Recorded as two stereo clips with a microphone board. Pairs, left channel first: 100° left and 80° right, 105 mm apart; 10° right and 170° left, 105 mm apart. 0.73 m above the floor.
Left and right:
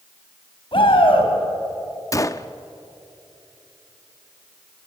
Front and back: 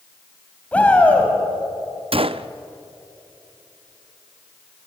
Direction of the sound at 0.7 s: 65° left.